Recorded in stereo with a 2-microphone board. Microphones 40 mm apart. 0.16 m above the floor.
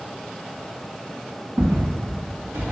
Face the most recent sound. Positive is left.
turn(degrees=-80)